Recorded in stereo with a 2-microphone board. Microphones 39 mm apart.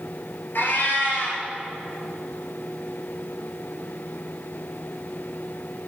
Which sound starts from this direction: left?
A cat meowing, at 0.6 s.